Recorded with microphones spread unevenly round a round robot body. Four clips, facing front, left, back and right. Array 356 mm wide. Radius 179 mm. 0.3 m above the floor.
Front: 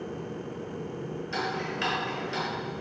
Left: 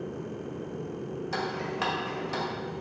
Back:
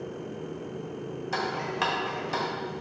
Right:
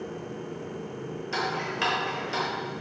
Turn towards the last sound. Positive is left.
turn(degrees=125)